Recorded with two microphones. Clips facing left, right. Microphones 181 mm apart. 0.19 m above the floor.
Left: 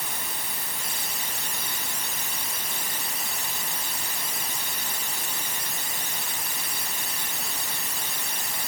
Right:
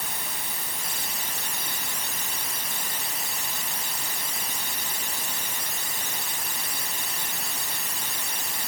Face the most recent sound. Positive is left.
No sound to turn to.